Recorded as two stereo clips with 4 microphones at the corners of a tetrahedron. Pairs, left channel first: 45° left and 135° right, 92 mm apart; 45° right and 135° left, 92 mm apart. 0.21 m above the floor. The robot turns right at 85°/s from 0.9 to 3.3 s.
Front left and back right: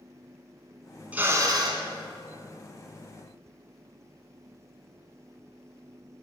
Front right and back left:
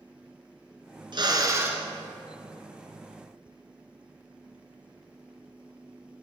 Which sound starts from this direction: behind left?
A drill, at 1.1 s.